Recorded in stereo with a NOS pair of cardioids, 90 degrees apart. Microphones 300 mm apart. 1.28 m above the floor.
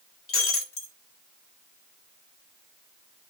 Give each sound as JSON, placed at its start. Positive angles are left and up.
{"t": 0.3, "sound": "breaking glass", "azimuth_deg": 45, "distance_m": 2.0}